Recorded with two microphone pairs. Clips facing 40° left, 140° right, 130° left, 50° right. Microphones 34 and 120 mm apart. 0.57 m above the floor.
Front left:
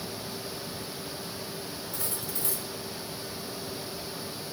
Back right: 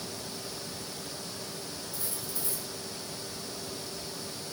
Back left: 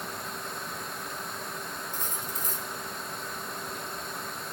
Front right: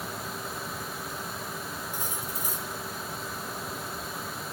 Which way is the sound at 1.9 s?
30° left.